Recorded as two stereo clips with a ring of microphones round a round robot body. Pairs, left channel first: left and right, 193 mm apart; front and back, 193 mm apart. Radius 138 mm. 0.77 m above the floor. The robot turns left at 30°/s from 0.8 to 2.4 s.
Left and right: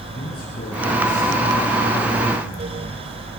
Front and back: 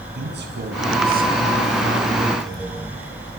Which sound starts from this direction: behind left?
A man speaking, at 0.1 s.